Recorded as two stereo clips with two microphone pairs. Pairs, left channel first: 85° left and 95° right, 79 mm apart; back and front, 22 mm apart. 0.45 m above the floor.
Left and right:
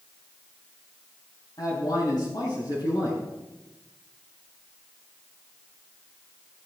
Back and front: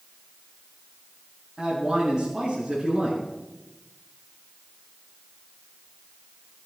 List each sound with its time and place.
1.6 s a man speaking: 60° left, 4.5 m